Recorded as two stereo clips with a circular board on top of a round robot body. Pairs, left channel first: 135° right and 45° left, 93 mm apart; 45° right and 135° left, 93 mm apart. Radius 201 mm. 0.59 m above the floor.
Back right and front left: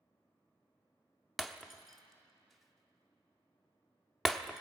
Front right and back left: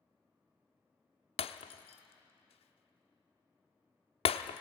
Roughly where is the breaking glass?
Ahead right.